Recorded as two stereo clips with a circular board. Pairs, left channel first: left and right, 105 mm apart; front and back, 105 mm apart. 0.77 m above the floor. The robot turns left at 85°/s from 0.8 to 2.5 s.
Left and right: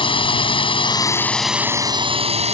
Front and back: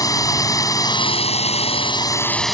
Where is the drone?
55° left; by 2.5 s 90° right.